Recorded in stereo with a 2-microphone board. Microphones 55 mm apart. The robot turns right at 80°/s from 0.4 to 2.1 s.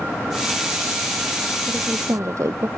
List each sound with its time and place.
1.7 s a woman speaking: 145° right; by 2.7 s 110° right